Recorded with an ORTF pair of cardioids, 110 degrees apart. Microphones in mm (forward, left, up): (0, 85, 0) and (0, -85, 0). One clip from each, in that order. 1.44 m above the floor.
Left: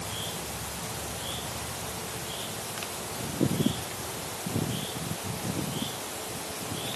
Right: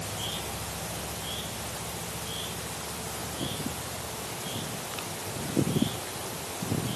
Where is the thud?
I don't hear a thud.